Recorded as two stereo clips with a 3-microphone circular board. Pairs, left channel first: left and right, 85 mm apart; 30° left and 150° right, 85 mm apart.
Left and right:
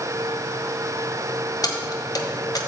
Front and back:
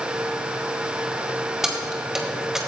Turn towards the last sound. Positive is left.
turn(degrees=125)